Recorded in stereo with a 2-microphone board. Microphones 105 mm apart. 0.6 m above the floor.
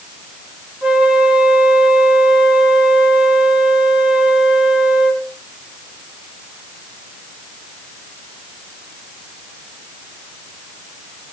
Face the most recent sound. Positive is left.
turn(degrees=-10)  # may be behind; listen again after turning